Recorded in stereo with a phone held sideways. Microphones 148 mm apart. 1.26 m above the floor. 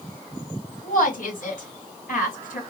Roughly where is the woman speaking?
Left.